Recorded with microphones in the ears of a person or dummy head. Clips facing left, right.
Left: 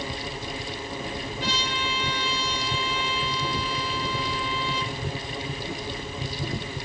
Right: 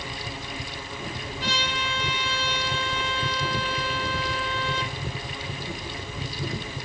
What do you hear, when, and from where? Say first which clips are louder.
1.4 s a trumpet: right 1 dB; 70° right (ahead or behind), 5.5 m